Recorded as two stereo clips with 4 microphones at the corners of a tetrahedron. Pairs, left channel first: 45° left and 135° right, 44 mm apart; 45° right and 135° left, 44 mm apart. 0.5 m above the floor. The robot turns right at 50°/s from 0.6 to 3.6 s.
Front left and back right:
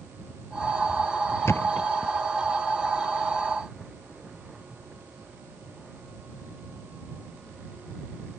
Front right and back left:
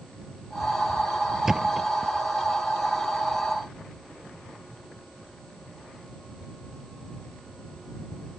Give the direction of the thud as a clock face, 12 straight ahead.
10 o'clock.